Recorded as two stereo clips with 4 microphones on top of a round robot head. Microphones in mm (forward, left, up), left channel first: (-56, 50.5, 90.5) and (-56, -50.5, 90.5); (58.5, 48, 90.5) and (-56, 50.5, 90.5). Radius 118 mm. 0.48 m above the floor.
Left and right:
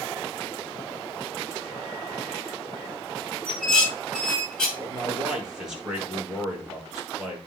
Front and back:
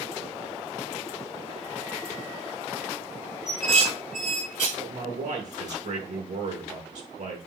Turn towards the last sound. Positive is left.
turn(degrees=-175)